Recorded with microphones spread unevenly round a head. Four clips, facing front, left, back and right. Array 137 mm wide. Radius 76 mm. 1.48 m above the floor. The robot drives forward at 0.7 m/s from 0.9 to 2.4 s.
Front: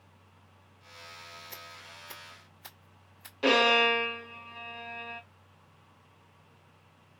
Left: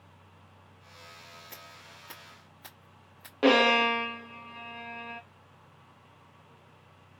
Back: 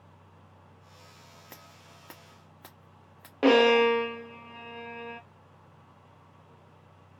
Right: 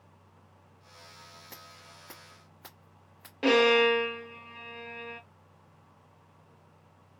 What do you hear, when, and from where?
1.5 s scissors: 160° right, 1.2 m; by 3.3 s 170° right, 1.8 m
3.4 s a violin: 150° left, 1.0 m